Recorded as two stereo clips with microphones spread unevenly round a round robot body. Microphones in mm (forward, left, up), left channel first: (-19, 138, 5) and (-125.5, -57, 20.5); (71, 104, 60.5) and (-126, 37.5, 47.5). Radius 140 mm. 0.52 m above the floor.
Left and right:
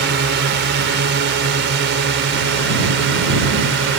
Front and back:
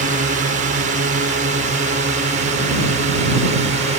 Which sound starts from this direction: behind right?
A drone, at 0.0 s.